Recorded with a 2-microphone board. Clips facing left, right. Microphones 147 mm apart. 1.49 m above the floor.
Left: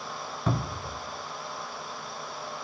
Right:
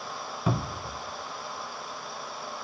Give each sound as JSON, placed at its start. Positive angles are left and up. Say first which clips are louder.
{"t": 0.5, "sound": "a cupboard door", "louder": "right 1 dB", "side_deg": -5, "distance_m": 0.6}